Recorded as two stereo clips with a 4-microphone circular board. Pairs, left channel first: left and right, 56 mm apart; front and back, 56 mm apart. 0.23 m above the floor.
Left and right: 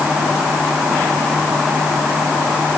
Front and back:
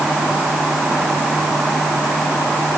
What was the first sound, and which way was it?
Only background noise.